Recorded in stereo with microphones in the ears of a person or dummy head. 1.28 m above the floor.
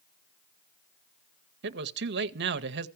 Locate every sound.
1.6 s a man speaking: 50° right (ahead or behind), 0.7 m